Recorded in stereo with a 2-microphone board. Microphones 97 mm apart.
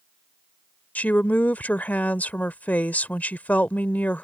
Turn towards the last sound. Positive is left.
turn(degrees=15)  # may be behind; listen again after turning